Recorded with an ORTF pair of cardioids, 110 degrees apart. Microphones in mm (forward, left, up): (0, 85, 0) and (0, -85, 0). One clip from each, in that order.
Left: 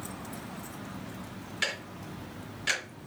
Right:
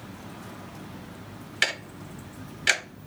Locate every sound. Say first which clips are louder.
1.6 s ticking: right 6 dB; 35° right, 0.9 m